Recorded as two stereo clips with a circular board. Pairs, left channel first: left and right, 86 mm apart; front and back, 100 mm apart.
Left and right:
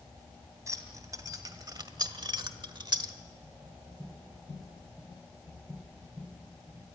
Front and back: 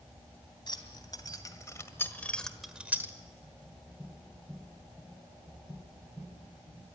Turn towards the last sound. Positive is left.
turn(degrees=-120)